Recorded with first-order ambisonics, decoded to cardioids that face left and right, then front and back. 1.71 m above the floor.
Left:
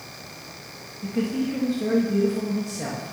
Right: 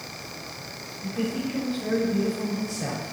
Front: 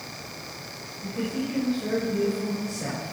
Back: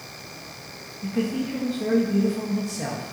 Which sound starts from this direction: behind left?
A man speaking, at 1.0 s.